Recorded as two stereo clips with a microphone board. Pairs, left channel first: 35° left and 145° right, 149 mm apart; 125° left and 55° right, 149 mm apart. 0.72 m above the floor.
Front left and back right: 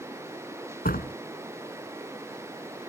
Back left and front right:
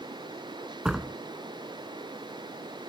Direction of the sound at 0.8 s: 30° left.